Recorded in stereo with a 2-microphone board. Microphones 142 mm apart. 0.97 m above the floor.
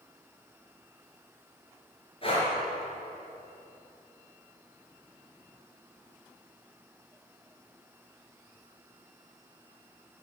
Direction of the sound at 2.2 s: 40° left (ahead or behind).